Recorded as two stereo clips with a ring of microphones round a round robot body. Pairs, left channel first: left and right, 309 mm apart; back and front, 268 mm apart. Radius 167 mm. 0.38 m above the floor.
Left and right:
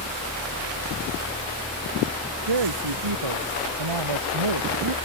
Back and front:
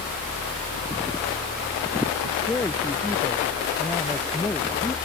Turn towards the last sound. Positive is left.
turn(degrees=-95)